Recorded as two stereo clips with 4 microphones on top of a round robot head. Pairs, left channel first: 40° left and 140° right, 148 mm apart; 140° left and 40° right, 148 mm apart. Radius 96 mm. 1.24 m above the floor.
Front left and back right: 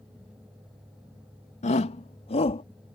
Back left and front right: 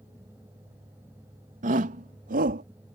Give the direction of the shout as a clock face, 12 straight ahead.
12 o'clock.